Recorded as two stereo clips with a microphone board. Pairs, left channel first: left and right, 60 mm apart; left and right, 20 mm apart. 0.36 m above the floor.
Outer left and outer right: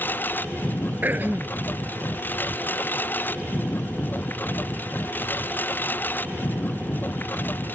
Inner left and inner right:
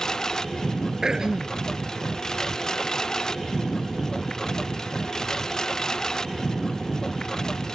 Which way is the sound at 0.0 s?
35° left (ahead or behind).